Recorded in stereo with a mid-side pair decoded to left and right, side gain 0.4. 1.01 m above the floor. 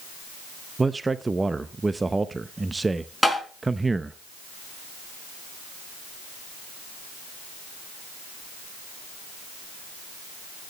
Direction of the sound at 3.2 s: Straight ahead.